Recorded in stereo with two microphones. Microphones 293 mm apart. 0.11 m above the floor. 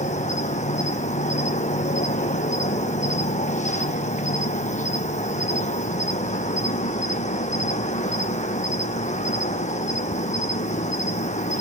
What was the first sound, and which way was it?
An insect, 25° left (ahead or behind).